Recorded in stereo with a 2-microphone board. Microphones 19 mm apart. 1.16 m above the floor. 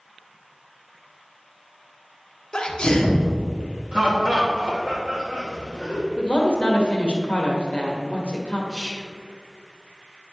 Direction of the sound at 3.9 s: 65° right (ahead or behind).